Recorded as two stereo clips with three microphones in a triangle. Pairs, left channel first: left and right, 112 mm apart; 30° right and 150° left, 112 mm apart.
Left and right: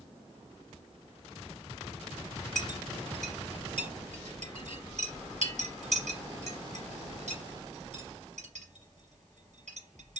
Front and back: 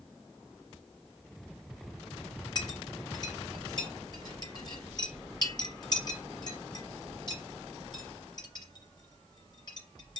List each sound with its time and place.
2.5 s a clink: 85° right, 4.5 m